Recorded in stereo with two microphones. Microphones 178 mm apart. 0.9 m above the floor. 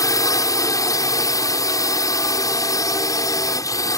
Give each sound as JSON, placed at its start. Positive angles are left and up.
{"t": 0.0, "sound": "a drone", "side_deg": 20}